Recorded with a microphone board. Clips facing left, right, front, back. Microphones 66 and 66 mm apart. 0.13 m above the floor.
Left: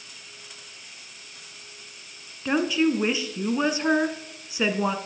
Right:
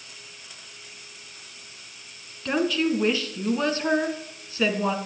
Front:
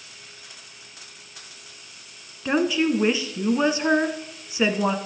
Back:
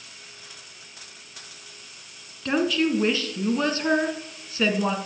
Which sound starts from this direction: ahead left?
A woman speaking, at 2.5 s.